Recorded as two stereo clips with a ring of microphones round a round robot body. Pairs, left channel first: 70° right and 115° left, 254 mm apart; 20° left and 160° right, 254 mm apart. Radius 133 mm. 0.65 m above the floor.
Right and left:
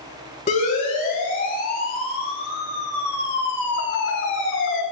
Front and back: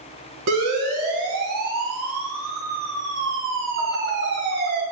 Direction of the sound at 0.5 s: 130° right.